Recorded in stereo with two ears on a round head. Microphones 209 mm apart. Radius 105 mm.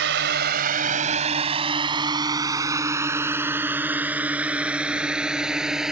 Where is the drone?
55° right (ahead or behind); by 5.9 s 5° right (ahead or behind).